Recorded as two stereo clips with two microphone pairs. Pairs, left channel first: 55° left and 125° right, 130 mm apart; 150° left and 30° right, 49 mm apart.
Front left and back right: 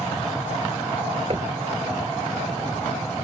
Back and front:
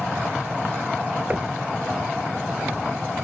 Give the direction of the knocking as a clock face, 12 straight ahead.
3 o'clock.